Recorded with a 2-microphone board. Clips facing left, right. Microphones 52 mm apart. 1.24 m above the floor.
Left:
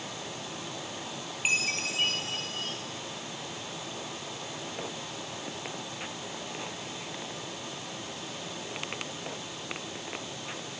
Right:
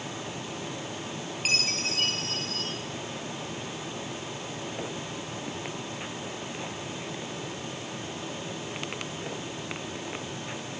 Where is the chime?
20° left (ahead or behind), 5 m.